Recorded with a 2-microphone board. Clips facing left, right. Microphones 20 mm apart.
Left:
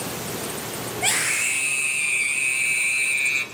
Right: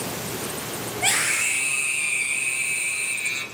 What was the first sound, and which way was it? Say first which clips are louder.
A scream: right 1 dB; 5° right (ahead or behind).